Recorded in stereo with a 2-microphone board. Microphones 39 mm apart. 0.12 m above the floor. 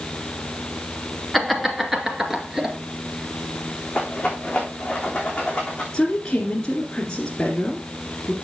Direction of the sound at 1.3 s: 5° right (ahead or behind).